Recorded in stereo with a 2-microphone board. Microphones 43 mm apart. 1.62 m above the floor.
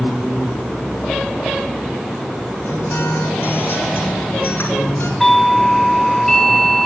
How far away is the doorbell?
About 4.5 m.